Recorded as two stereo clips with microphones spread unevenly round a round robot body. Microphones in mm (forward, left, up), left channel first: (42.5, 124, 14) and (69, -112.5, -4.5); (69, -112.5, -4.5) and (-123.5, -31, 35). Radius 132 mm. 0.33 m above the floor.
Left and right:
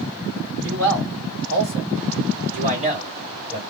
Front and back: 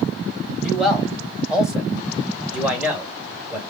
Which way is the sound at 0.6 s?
105° right.